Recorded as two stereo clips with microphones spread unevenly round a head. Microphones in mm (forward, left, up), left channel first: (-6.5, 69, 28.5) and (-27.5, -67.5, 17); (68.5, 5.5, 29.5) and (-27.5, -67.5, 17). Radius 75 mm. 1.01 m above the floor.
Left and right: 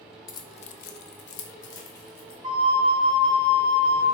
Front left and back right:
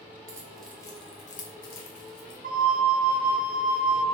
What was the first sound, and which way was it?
Keys jangling, 150° left.